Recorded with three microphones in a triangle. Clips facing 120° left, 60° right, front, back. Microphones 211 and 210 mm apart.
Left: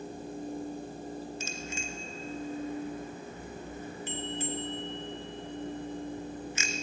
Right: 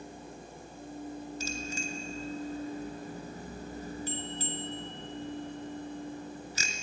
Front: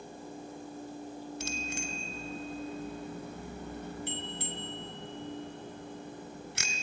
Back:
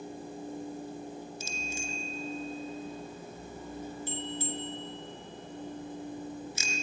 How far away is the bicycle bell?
About 2 m.